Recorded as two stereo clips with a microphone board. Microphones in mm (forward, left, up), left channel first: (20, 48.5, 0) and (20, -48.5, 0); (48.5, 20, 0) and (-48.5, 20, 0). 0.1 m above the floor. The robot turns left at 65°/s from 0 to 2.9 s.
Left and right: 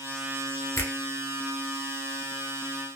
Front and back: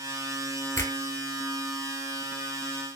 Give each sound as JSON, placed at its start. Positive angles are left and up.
{"t": 0.8, "sound": "a finger snap", "azimuth_deg": 40, "distance_m": 1.3}